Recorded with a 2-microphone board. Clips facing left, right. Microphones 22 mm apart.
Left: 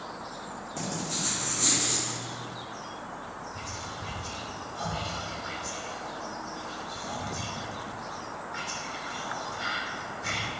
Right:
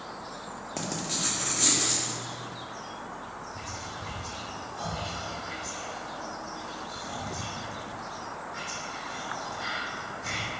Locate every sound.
0.8 s writing: 45° right (ahead or behind), 1.4 m
3.5 s whispering: 10° left (ahead or behind), 2.5 m